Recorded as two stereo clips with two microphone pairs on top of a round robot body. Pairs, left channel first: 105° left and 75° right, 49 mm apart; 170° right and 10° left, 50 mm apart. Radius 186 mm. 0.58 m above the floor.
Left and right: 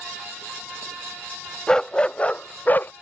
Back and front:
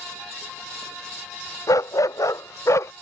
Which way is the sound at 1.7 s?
175° right.